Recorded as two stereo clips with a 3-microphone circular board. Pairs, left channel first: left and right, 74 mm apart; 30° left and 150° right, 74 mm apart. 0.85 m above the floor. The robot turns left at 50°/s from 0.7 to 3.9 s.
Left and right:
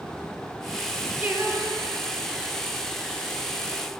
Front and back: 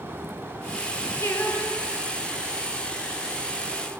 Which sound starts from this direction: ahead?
Singing, at 1.2 s.